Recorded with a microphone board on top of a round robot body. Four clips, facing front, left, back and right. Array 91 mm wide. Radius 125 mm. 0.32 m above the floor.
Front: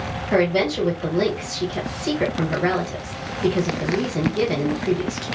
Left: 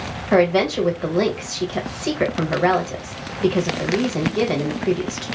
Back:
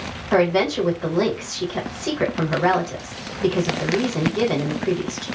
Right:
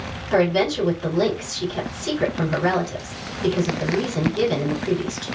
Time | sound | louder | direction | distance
0.3 | a woman speaking | left 2 dB, back 1 dB | 100° left | 1.6 m